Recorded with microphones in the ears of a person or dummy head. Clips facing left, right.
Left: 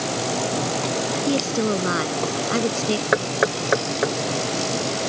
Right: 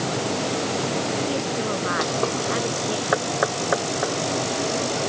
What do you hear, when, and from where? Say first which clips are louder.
1.3 s a woman speaking: left 4 dB; 40° left (ahead or behind)
3.1 s knocking: even; 35° left (ahead or behind)